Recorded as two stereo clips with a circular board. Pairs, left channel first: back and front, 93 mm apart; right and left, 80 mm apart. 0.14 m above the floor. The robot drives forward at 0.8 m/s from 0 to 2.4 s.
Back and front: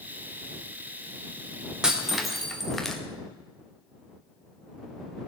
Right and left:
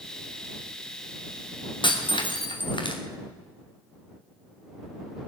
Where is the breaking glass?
80° right, 2.5 m; by 3.0 s 90° right, 2.5 m.